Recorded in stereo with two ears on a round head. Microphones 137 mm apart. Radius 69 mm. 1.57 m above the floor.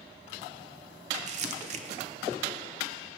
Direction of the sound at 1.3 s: 45° right (ahead or behind).